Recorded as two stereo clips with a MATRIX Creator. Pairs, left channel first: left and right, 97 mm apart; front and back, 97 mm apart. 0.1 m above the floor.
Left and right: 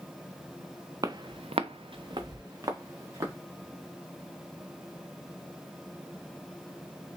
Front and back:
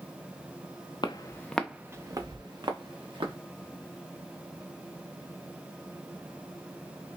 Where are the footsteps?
35° right, 0.7 m; by 3.4 s 150° right, 1.8 m.